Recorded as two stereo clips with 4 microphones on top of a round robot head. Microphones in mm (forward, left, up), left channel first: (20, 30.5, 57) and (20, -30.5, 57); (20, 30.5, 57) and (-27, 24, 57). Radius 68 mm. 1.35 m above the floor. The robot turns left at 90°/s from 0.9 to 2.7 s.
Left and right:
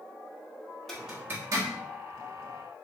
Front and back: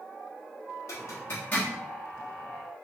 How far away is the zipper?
About 1.1 m.